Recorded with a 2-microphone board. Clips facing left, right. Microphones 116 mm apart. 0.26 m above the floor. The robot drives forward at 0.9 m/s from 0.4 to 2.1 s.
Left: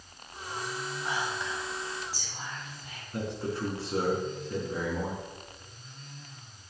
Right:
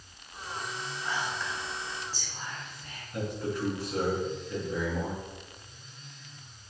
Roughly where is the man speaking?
Left.